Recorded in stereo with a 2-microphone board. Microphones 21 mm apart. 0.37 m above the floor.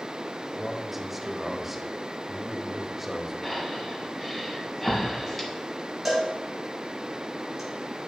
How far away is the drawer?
No drawer in this recording.